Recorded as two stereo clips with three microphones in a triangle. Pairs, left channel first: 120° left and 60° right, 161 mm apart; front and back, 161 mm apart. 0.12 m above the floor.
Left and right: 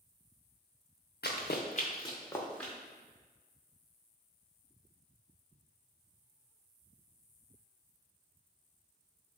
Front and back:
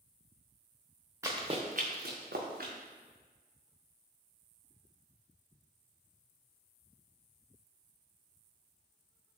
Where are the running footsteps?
110° left, 0.6 m; by 2.7 s 155° right, 1.0 m.